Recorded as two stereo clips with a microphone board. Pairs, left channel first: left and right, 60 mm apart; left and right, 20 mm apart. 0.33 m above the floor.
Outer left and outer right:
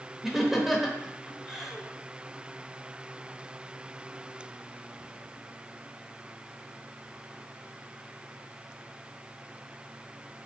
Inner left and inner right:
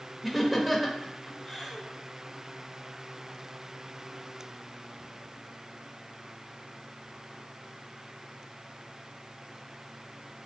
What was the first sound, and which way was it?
Laughter, 5° right (ahead or behind).